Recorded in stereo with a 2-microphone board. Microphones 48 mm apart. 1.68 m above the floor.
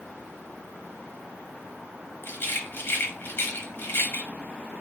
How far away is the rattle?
About 0.9 m.